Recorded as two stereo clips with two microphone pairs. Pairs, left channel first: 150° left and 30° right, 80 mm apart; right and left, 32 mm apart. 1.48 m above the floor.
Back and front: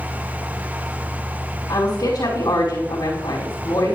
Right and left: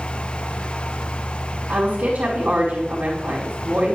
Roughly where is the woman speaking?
Behind left.